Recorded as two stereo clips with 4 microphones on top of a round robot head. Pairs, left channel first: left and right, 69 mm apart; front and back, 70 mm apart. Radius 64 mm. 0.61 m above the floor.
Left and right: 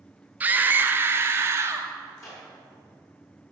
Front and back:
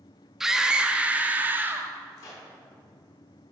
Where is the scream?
105° right, 1.1 m; by 1.9 s 130° right, 1.5 m.